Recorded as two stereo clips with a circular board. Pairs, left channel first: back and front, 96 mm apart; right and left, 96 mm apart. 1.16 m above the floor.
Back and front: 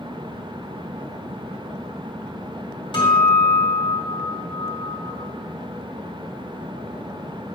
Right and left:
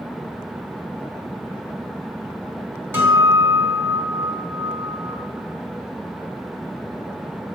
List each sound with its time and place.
2.9 s a guitar: 155° left, 2.5 m